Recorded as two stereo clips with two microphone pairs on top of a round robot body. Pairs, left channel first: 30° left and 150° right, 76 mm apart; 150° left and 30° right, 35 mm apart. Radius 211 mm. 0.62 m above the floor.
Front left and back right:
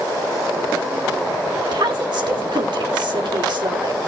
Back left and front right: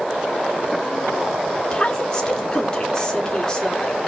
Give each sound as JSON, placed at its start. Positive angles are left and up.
{"t": 1.7, "sound": "a woman speaking", "azimuth_deg": -150, "distance_m": 3.0}